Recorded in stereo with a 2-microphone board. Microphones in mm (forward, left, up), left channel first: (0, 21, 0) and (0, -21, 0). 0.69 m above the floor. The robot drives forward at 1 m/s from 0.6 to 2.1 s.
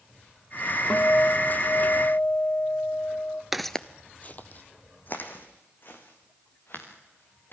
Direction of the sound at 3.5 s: 10° right (ahead or behind).